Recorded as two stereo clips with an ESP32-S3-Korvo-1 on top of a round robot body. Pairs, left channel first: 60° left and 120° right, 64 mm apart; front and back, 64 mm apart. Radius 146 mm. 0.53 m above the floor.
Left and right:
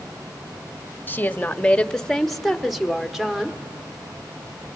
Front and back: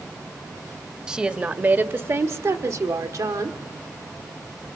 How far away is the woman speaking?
About 1.5 m.